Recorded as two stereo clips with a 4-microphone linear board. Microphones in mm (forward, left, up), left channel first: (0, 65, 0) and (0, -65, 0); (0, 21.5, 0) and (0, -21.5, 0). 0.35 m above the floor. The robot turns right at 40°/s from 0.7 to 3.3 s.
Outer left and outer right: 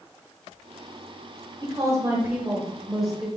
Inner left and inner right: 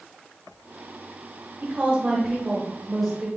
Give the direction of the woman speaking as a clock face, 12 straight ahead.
2 o'clock.